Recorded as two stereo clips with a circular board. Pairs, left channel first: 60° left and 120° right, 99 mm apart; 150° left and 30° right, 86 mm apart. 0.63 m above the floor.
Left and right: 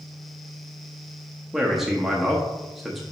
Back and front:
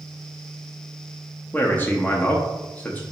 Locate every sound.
1.5 s a man speaking: 160° left, 0.5 m